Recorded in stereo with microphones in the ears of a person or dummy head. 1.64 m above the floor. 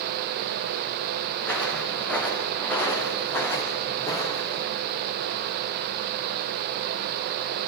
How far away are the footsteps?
About 7 m.